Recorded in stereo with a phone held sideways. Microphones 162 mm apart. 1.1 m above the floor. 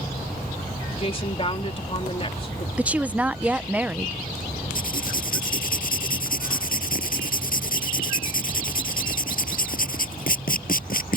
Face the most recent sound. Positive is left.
turn(degrees=60)  # may be behind; listen again after turning